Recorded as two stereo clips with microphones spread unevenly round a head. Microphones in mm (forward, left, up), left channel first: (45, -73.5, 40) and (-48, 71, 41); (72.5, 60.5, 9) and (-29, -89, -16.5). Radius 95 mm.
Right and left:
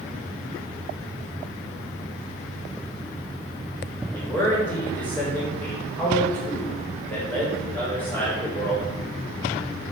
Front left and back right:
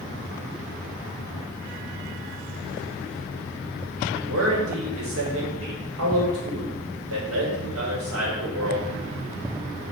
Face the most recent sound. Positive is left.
turn(degrees=-140)